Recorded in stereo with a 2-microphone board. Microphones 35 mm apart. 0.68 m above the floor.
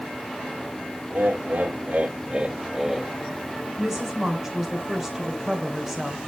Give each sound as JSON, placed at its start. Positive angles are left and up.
{"t": 1.1, "sound": "laughter", "side_deg": -55, "distance_m": 1.9}
{"t": 3.8, "sound": "a woman speaking", "side_deg": -10, "distance_m": 2.5}